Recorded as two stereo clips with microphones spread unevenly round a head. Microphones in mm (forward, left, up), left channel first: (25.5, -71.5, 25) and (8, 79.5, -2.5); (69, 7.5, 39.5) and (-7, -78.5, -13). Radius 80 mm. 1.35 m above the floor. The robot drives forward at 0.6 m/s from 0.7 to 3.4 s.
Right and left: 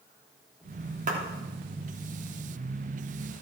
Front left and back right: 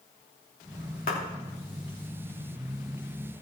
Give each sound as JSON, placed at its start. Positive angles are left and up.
{"t": 1.1, "sound": "a clap", "azimuth_deg": 55, "distance_m": 3.0}